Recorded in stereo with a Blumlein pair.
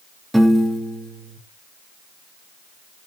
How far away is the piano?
About 1.8 m.